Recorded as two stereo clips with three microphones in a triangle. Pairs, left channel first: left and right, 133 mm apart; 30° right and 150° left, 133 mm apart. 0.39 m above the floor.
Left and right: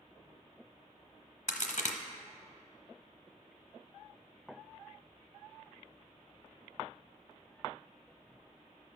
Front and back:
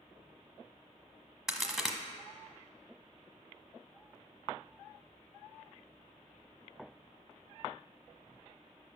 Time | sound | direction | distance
1.5 | a crack | 60° left | 0.8 m